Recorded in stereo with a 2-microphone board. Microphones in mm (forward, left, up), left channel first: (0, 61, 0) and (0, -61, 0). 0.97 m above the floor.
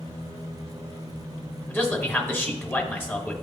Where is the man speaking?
15° left (ahead or behind), 1.6 m.